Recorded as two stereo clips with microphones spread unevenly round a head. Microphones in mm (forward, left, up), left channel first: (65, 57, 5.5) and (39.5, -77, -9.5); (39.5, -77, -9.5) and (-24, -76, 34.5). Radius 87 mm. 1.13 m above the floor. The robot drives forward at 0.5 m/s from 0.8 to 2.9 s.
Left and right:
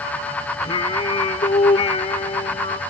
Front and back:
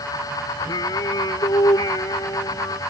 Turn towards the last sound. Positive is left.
turn(degrees=40)